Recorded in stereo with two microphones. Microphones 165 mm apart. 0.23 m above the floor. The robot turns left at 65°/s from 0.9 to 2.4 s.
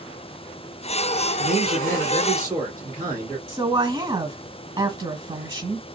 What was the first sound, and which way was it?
A man speaking, 85° right.